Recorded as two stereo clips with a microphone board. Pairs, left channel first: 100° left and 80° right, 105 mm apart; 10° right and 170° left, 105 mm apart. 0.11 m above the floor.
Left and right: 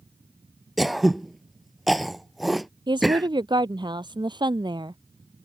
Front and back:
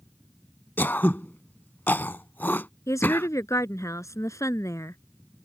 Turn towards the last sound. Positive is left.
turn(degrees=-60)